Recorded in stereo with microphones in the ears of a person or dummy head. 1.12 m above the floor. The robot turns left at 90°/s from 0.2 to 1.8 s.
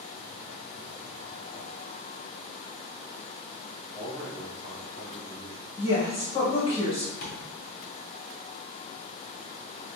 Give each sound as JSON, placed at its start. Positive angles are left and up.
{"t": 3.9, "sound": "a man speaking", "side_deg": 15, "distance_m": 1.6}
{"t": 5.8, "sound": "a woman speaking", "side_deg": 25, "distance_m": 1.1}
{"t": 7.2, "sound": "tapping", "side_deg": 45, "distance_m": 1.1}